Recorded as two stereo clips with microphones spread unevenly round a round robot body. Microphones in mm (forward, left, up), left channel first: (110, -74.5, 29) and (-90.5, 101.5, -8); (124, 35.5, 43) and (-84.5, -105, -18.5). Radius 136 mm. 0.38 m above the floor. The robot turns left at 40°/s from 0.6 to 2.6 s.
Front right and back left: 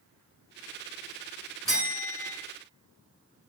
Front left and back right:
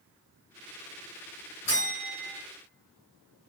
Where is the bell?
60° left, 1.3 m; by 2.4 s 35° left, 1.3 m.